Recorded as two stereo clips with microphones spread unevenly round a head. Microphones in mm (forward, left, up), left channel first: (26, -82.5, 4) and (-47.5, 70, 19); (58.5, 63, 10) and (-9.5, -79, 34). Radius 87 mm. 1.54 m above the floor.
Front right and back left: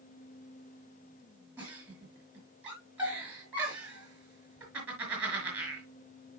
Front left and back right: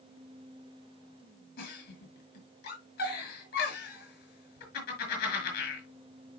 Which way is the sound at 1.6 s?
35° left.